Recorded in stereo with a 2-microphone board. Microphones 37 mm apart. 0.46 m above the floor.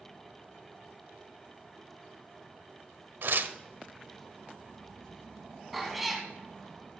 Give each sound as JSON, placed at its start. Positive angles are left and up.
{"t": 3.2, "sound": "tearing paper", "side_deg": -65, "distance_m": 0.5}
{"t": 5.7, "sound": "a cat meowing", "side_deg": 0, "distance_m": 1.6}